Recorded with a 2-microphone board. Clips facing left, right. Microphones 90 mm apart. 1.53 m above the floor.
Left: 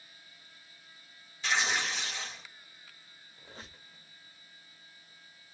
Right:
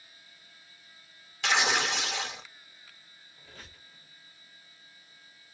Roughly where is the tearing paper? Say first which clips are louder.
Right 4 dB; right.